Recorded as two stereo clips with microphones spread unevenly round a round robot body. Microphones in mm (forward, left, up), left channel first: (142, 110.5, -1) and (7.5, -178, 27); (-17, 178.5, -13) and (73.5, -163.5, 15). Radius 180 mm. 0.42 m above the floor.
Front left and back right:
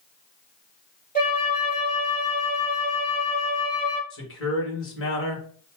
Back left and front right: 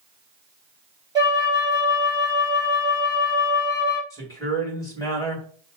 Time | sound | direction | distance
1.1 | a flute | 5° left | 3 m
4.1 | a man speaking | 25° left | 1.8 m